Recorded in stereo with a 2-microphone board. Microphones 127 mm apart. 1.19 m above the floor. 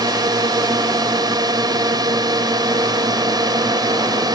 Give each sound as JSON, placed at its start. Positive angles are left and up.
{"t": 0.0, "sound": "a drone", "side_deg": -30}